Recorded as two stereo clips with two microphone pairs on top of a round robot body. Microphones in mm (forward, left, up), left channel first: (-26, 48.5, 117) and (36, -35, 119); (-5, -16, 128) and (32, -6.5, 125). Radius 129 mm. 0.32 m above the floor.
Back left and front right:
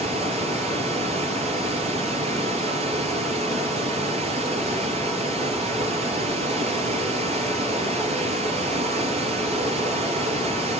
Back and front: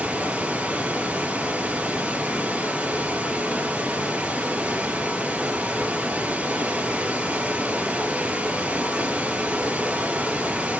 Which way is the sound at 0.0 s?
40° right.